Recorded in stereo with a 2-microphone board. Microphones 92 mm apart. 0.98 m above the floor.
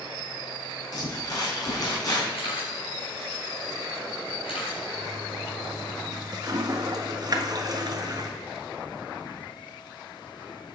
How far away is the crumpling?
About 4.5 m.